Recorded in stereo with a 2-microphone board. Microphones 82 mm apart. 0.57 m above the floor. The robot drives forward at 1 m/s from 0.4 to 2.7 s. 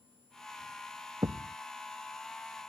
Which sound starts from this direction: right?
A thud, at 1.2 s.